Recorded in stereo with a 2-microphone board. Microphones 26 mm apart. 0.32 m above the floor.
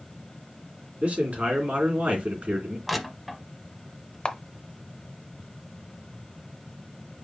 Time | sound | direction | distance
1.0 | a man speaking | 75° right (ahead or behind) | 3 m
2.9 | crushing | 5° right (ahead or behind) | 0.7 m
4.2 | a camera shutter | 35° left (ahead or behind) | 0.7 m